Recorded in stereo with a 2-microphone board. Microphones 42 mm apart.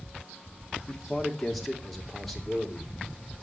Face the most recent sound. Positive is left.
turn(degrees=5)  # may be behind; listen again after turning